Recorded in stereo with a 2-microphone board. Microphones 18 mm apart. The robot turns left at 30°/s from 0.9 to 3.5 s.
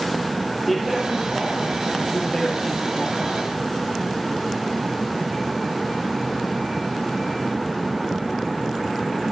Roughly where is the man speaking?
Behind.